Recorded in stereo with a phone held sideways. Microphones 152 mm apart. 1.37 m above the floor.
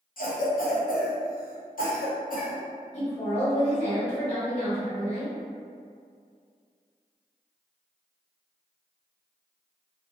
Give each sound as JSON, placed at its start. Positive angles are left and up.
{"t": 0.2, "sound": "a cough", "side_deg": 70, "distance_m": 0.9}
{"t": 2.9, "sound": "a woman speaking", "side_deg": 45, "distance_m": 1.4}